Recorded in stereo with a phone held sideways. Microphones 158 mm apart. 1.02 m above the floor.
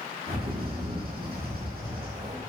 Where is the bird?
75° right (ahead or behind), 6.5 m.